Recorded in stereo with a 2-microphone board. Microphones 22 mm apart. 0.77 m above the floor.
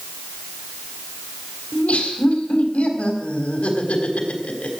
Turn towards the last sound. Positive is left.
turn(degrees=85)